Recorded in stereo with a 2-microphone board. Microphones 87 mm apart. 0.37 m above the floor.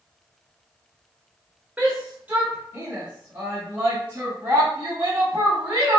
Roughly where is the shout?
Centre.